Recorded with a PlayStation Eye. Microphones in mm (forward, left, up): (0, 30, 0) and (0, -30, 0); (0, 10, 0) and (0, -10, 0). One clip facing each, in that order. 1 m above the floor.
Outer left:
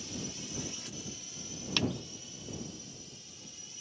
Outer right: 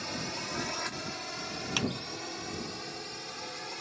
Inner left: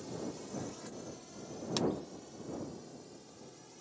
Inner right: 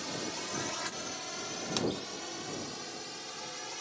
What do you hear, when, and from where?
0.0 s a drone: 65° right (ahead or behind); by 3.8 s 70° right (ahead or behind)
1.8 s a clap: 10° right (ahead or behind)